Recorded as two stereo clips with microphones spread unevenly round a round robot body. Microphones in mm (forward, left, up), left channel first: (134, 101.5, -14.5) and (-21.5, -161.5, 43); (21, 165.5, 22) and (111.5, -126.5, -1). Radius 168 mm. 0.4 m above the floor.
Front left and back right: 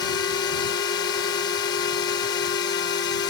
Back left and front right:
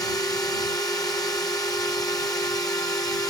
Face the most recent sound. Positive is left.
turn(degrees=35)